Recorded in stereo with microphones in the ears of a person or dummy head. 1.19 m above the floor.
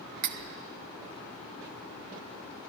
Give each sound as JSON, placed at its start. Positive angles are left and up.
{"t": 0.2, "sound": "cutlery clinking", "side_deg": -50, "distance_m": 0.6}